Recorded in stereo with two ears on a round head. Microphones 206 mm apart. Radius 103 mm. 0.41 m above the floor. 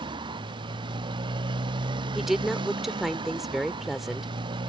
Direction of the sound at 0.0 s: 20° right (ahead or behind).